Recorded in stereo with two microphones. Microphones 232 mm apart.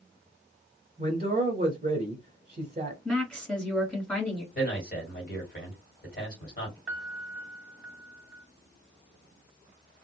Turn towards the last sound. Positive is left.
turn(degrees=0)  # may be behind; listen again after turning